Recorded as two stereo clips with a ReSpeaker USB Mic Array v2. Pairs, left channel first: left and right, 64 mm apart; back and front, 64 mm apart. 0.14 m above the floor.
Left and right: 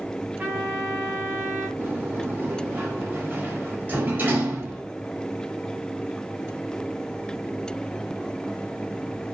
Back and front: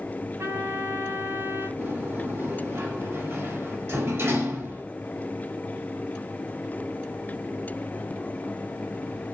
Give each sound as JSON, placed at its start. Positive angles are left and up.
{"t": 0.4, "sound": "a trumpet", "azimuth_deg": -30, "distance_m": 5.5}
{"t": 1.8, "sound": "a sliding door", "azimuth_deg": -40, "distance_m": 4.0}